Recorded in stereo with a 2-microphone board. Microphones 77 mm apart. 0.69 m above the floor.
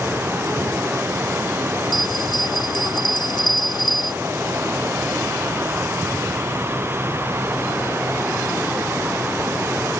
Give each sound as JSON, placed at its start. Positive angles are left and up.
{"t": 1.9, "sound": "a bell", "side_deg": 75}